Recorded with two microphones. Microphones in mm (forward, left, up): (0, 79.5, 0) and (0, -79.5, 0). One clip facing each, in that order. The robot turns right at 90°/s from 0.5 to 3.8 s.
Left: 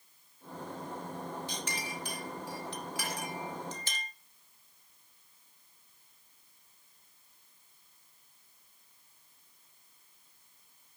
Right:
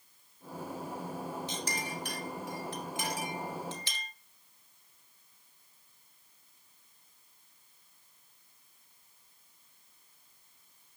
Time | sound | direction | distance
1.5 | a clink | 20° right (ahead or behind) | 2 m